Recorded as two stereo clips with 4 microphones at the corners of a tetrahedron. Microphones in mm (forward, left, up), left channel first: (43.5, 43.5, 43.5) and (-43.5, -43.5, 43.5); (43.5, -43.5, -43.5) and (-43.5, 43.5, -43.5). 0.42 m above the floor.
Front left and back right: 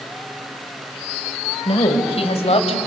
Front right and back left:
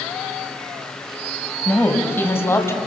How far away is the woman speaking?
About 1.9 m.